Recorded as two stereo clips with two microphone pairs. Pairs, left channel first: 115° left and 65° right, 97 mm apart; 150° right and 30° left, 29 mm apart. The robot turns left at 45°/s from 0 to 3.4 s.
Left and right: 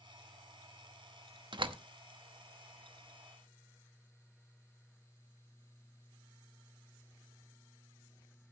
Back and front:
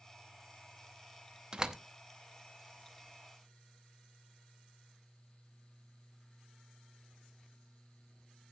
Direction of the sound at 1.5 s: 30° right.